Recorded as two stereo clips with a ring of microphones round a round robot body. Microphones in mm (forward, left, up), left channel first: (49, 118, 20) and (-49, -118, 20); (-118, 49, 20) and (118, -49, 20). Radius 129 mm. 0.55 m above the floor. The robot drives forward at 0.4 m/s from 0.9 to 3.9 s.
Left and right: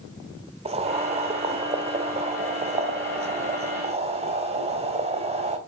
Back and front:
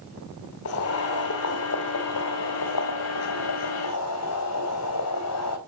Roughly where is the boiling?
Behind.